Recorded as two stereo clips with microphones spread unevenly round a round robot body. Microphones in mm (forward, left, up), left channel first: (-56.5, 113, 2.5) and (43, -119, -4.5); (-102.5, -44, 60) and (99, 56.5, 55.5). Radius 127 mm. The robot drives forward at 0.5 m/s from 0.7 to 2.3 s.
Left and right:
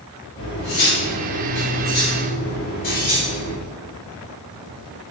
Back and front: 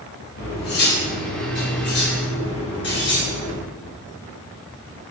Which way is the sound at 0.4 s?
160° left.